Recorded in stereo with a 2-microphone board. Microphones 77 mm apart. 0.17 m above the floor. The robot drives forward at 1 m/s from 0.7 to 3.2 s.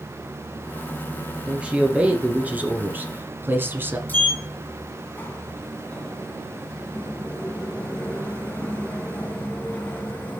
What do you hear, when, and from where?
1.5 s a man speaking: 15° right (ahead or behind), 2.5 m; by 4.0 s 25° right (ahead or behind), 1.4 m
4.1 s a sliding door: 20° left (ahead or behind), 1.8 m